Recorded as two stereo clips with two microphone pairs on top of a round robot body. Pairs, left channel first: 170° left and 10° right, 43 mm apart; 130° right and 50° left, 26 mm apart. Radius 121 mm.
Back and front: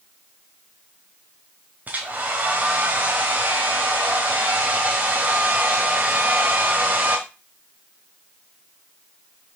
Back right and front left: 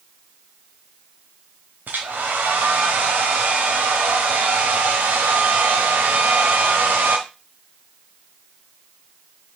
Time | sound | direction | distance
1.9 | a hair dryer | 45° left | 1.3 m